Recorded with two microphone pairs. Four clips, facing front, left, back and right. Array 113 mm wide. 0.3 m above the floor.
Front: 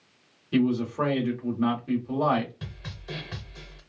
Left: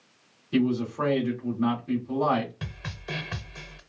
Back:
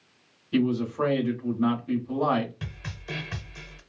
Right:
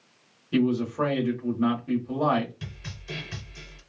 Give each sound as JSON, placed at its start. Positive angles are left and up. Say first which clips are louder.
{"t": 0.5, "sound": "a man speaking", "louder": "right 1 dB, front 1 dB", "azimuth_deg": -15, "distance_m": 1.2}
{"t": 2.6, "sound": "a snare drum", "louder": "left 3 dB, back 2 dB", "azimuth_deg": 90, "distance_m": 0.7}